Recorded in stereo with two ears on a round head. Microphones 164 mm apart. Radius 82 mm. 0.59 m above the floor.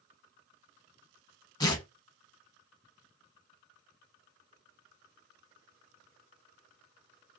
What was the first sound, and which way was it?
Tearing paper, 20° left (ahead or behind).